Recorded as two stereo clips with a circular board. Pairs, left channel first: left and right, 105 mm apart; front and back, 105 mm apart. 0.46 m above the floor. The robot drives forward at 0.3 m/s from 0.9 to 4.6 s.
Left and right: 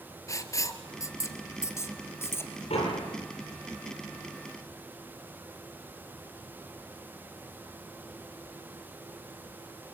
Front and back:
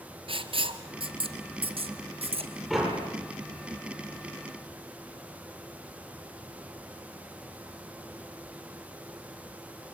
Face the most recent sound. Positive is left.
turn(degrees=90)